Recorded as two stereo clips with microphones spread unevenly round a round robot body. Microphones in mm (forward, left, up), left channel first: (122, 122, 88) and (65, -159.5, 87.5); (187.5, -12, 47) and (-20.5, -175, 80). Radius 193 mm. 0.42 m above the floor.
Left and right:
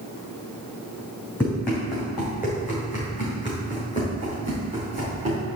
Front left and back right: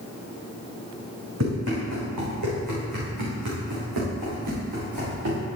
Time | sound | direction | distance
1.4 | running footsteps | 165° left | 2 m